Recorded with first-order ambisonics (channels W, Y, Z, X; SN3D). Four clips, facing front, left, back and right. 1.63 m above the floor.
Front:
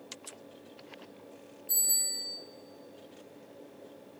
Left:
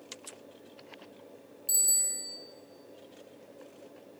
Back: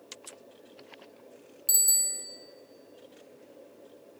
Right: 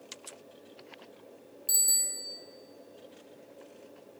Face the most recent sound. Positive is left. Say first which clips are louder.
# right 1 dB, back 4 dB
turn(degrees=-170)